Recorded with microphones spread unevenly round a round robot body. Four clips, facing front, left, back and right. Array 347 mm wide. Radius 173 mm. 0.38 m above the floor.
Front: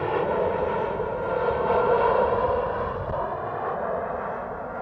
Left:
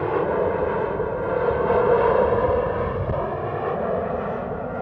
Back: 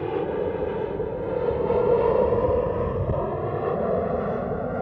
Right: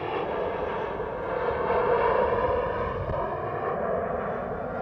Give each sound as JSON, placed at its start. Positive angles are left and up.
{"t": 0.0, "sound": "an aircraft", "azimuth_deg": 85}